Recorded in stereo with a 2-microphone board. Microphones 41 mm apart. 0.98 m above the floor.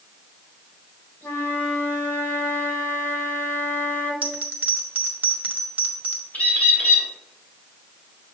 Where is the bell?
35° right (ahead or behind), 1.3 m.